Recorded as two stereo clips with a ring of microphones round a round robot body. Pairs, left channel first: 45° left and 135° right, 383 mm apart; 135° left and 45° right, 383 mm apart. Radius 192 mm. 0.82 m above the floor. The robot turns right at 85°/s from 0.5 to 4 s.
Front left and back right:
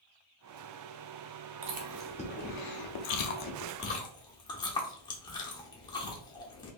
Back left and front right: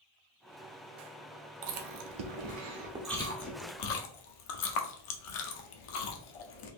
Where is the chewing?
80° right, 0.8 m; by 6.7 s 125° left, 0.8 m.